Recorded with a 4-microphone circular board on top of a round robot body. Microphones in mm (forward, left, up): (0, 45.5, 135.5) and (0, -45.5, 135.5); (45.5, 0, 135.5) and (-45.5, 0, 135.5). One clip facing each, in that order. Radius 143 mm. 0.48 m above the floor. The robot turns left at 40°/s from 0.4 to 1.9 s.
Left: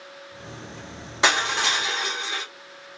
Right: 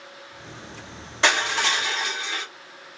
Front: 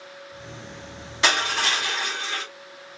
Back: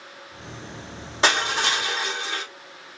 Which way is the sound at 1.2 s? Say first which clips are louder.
Even, back 1 dB; 155° left.